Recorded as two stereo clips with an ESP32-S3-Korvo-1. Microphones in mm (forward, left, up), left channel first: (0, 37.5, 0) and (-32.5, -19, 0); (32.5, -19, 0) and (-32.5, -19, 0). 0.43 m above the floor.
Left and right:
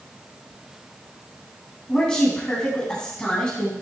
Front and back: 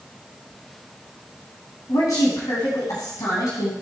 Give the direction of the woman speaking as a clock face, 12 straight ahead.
1 o'clock.